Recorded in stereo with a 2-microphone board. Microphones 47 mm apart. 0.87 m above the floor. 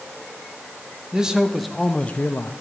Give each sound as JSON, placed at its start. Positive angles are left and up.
{"t": 1.1, "sound": "a man speaking", "side_deg": -15, "distance_m": 1.1}